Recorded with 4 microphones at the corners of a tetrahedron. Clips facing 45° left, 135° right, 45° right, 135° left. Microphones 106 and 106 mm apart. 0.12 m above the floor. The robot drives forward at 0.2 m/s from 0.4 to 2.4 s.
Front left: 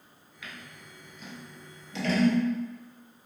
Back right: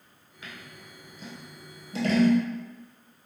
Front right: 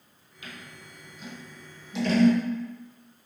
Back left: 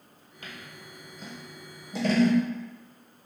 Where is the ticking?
No ticking in this recording.